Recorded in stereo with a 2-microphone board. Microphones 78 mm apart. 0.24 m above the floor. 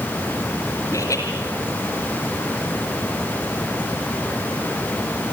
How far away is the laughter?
About 4 m.